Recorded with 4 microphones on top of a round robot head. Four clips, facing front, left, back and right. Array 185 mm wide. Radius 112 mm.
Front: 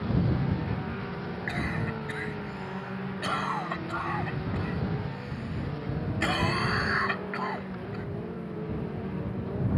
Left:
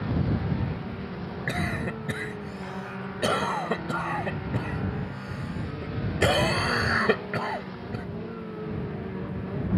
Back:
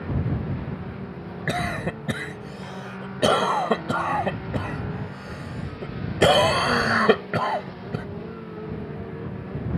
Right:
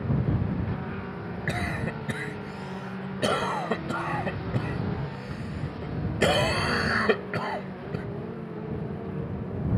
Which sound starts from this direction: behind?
A cough, at 1.5 s.